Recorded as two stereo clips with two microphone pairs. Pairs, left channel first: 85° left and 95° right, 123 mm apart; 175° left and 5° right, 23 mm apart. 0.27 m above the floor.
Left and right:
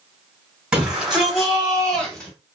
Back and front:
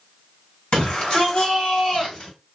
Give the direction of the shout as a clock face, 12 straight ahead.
6 o'clock.